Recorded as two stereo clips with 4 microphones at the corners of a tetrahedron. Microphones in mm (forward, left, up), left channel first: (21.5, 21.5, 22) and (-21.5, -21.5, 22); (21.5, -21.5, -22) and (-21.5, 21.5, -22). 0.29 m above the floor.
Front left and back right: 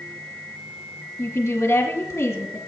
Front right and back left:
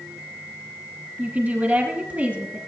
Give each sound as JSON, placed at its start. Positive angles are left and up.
{"t": 1.2, "sound": "a woman speaking", "azimuth_deg": 80, "distance_m": 3.0}